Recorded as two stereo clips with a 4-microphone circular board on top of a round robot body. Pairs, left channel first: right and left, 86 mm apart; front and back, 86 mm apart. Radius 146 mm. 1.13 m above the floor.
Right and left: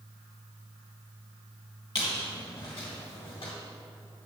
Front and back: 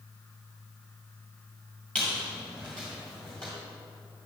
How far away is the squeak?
About 1.0 m.